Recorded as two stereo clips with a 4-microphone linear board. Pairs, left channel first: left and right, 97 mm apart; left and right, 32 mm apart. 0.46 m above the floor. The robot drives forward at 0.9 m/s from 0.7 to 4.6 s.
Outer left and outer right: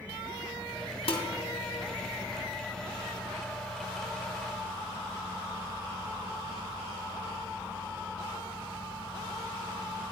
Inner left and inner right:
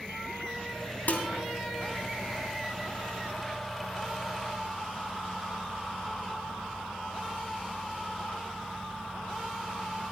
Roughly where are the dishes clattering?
Left.